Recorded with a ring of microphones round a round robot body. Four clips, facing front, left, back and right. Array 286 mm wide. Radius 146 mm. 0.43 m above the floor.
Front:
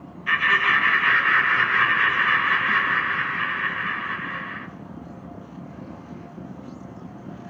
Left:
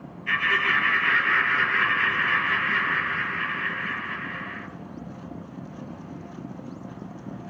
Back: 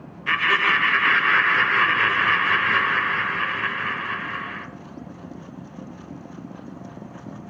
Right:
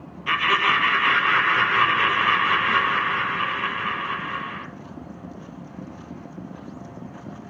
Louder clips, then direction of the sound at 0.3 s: Right 4 dB, even; 125° right.